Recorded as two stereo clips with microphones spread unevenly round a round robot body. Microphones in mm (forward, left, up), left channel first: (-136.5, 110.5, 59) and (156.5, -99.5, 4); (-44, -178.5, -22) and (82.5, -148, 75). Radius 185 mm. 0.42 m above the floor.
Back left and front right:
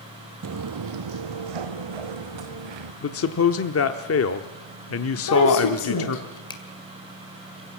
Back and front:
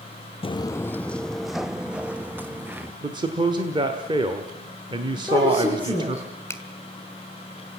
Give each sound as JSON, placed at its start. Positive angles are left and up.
{"t": 0.4, "sound": "footsteps", "azimuth_deg": -90, "distance_m": 0.6}
{"t": 3.0, "sound": "a man speaking", "azimuth_deg": 115, "distance_m": 1.0}
{"t": 5.2, "sound": "a woman speaking", "azimuth_deg": 105, "distance_m": 7.0}
{"t": 6.5, "sound": "a finger snap", "azimuth_deg": -135, "distance_m": 2.0}